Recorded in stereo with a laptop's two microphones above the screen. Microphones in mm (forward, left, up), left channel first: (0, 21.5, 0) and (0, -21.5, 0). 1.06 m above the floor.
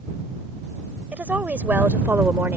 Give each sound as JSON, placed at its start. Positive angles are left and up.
{"t": 1.1, "sound": "a woman speaking", "side_deg": -45}